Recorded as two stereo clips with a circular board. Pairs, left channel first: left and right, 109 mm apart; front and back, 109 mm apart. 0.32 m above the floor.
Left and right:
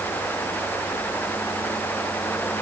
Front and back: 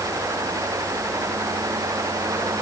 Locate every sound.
Only background noise.